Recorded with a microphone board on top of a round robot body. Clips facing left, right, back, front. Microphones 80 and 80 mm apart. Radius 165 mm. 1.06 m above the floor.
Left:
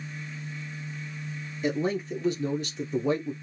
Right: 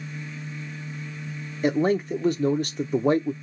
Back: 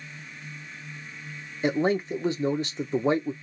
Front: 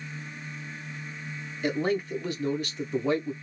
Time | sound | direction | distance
1.6 | a man speaking | 120° right | 0.6 m